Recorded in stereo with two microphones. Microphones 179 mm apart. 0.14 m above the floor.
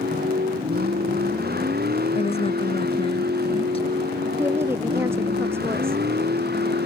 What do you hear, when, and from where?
0.0 s a vehicle: 60° right (ahead or behind); by 6.9 s 65° right (ahead or behind)
2.1 s a woman speaking: 35° left (ahead or behind)
4.4 s a woman speaking: 15° right (ahead or behind)